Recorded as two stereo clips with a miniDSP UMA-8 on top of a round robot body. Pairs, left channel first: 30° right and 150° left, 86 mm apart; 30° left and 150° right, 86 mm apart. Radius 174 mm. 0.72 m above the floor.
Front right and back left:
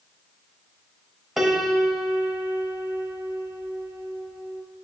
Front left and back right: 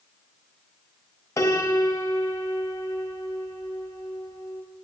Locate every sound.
1.4 s a piano: 65° left, 1.5 m